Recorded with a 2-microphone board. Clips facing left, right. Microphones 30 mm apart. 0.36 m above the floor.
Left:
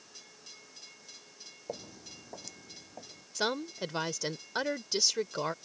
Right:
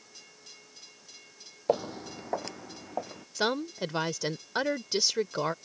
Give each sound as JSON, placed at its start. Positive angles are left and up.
{"t": 1.7, "sound": "footsteps", "side_deg": -60}
{"t": 3.4, "sound": "a woman speaking", "side_deg": -15}